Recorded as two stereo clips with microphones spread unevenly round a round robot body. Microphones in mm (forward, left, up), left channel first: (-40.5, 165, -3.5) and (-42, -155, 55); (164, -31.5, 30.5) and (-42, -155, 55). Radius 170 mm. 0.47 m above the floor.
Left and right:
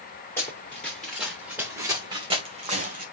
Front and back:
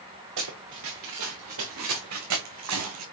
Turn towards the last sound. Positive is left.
turn(degrees=-150)